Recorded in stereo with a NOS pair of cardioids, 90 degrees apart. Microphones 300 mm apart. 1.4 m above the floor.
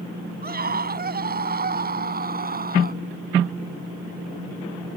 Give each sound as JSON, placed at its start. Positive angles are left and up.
{"t": 0.4, "sound": "a scream", "azimuth_deg": -30}